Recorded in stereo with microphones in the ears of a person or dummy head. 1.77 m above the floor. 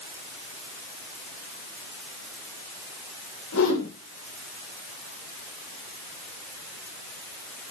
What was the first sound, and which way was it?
A whoosh, 75° left (ahead or behind).